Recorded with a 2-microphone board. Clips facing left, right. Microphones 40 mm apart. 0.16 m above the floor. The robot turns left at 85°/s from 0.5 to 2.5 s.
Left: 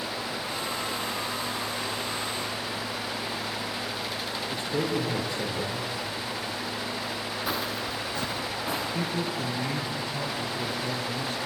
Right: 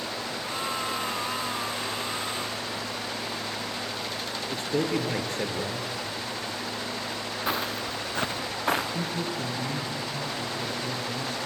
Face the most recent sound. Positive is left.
turn(degrees=50)  # may be behind; listen again after turning